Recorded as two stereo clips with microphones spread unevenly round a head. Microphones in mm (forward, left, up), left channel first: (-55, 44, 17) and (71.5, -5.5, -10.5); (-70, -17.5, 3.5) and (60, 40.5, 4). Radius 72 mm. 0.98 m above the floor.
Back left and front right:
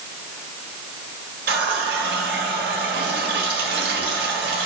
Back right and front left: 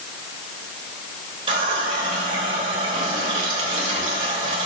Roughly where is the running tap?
Ahead right.